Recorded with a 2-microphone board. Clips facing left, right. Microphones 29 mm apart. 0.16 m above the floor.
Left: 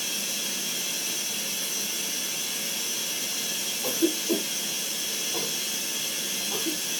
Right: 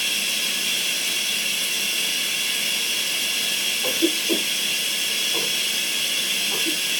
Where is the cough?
15° right (ahead or behind), 1.9 m.